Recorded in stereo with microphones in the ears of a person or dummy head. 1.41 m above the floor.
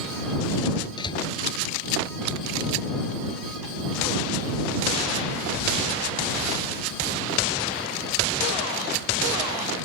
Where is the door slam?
30° left (ahead or behind).